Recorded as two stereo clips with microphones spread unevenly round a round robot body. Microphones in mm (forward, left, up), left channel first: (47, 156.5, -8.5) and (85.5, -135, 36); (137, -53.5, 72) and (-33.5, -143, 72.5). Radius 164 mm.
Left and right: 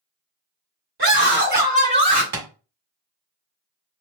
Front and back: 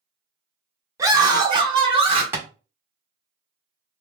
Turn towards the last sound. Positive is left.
turn(degrees=-85)